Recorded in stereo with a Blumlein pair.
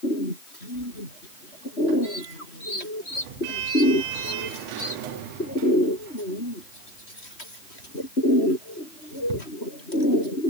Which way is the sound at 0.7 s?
50° right.